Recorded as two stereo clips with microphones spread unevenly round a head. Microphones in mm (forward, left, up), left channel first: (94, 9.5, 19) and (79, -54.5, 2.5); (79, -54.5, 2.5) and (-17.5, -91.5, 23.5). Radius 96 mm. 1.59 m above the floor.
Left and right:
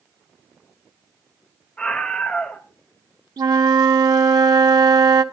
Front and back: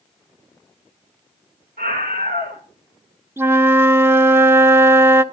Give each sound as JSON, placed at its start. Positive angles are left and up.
{"t": 1.8, "sound": "a scream", "azimuth_deg": 160, "distance_m": 2.5}
{"t": 3.4, "sound": "a flute", "azimuth_deg": -90, "distance_m": 0.8}